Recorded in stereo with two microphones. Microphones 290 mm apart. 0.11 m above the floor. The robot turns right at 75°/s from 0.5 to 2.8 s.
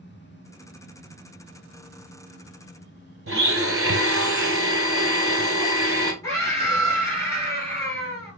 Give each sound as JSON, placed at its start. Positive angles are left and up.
{"t": 3.3, "sound": "a blender", "side_deg": -50, "distance_m": 1.1}
{"t": 6.2, "sound": "a scream", "side_deg": 10, "distance_m": 2.5}